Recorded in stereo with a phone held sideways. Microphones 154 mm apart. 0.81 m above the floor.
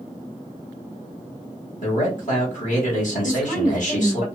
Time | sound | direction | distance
1.8 | a man speaking | 60° left (ahead or behind) | 1.5 m
3.2 | a woman speaking | 65° left (ahead or behind) | 1.7 m